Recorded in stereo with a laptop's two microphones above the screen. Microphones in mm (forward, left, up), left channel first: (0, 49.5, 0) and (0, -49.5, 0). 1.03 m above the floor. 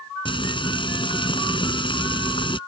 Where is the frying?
60° left (ahead or behind).